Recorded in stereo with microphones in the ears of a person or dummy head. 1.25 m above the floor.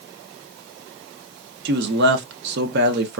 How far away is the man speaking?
About 0.5 m.